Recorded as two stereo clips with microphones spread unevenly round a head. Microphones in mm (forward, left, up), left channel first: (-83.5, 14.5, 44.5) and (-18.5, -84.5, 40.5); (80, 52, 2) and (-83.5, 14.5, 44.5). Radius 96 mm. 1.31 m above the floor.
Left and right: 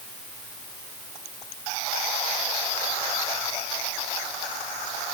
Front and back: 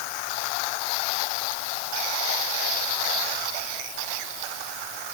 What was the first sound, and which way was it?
Only background noise.